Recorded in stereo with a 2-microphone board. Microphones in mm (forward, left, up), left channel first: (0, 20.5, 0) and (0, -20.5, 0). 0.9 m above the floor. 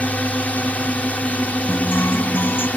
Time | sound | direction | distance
0.0 | a drone | 35° left (ahead or behind) | ?
1.7 | a guitar | 65° left (ahead or behind) | ?